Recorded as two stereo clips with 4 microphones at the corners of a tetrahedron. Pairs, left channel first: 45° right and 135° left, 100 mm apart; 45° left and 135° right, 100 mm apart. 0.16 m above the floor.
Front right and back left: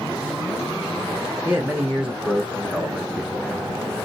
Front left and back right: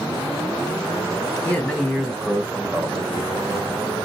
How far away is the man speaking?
About 1.2 m.